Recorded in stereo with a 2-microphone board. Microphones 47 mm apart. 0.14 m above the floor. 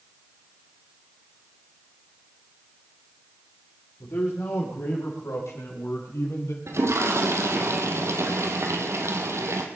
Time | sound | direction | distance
4.0 | a man speaking | 80° left | 6.5 m
6.7 | a toilet flushing | 70° right (ahead or behind) | 2.0 m